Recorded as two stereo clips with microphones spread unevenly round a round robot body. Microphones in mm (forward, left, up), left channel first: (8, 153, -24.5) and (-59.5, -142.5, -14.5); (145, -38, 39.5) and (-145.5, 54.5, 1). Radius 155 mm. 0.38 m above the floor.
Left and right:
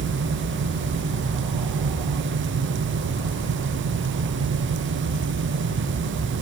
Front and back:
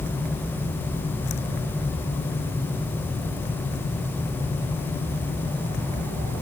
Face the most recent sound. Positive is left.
No sound to turn to.